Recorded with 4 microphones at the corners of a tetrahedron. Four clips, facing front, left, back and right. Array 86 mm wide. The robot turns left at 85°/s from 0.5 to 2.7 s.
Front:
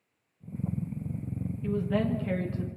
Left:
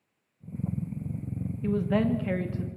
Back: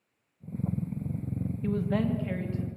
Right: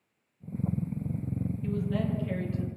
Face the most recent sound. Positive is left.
turn(degrees=40)